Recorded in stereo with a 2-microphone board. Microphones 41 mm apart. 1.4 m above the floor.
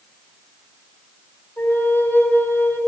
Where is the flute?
85° left, 5 m.